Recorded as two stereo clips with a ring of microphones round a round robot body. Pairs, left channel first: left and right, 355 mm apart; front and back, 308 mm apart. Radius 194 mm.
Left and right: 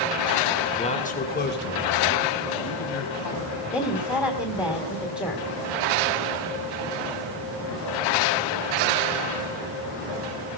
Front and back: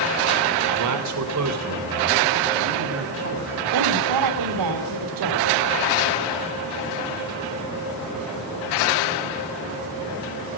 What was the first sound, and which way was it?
A man speaking, 165° left.